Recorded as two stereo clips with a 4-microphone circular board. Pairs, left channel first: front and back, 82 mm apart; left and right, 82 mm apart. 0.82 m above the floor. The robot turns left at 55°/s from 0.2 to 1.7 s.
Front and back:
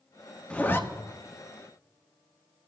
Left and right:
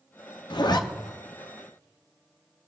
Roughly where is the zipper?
Left.